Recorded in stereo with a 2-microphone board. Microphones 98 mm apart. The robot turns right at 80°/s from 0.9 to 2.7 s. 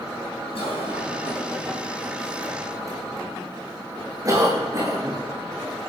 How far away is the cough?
About 7 m.